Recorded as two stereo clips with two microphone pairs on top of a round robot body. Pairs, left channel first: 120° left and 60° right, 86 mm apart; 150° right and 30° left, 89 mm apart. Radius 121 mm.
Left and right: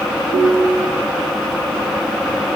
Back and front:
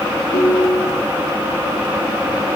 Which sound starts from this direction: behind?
A ringtone, at 0.3 s.